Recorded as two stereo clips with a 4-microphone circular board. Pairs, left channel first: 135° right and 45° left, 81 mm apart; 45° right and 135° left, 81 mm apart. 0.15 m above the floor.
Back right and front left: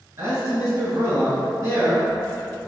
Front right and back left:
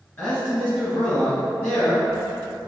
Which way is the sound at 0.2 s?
25° left.